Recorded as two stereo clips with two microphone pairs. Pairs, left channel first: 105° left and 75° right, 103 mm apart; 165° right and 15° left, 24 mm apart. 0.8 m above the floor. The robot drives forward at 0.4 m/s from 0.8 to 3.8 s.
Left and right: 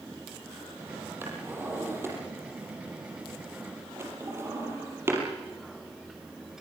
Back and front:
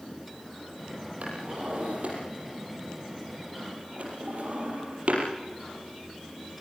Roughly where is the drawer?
Ahead.